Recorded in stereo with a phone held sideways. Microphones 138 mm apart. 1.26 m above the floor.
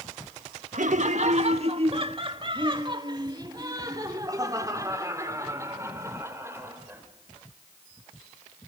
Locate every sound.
0.7 s laughter: 65° right (ahead or behind), 1.2 m; by 7.0 s 20° right (ahead or behind), 4 m